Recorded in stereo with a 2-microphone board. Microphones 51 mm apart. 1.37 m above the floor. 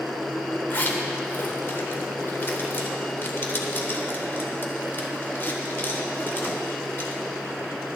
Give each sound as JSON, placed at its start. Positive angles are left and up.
{"t": 0.7, "sound": "a zipper", "side_deg": 45, "distance_m": 1.3}